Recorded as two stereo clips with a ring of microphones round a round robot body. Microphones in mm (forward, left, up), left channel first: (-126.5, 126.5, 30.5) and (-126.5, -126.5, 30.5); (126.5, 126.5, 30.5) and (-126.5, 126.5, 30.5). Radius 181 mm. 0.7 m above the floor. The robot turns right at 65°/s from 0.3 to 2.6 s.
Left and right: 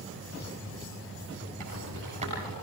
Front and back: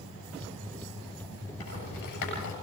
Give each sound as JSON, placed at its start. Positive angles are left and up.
{"t": 1.6, "sound": "a rattle", "azimuth_deg": -55, "distance_m": 8.0}